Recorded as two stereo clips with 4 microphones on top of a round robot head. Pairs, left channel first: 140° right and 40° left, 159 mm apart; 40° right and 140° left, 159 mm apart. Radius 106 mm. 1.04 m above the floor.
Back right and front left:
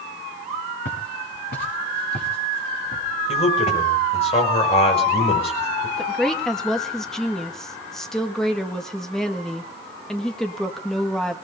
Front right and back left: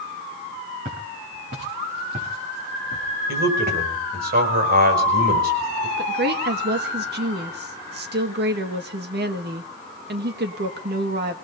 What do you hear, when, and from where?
0.8 s footsteps: 175° right, 6 m; by 3.8 s 170° left, 6 m
3.3 s a man speaking: 165° left, 6 m
6.0 s a woman speaking: 135° left, 1.8 m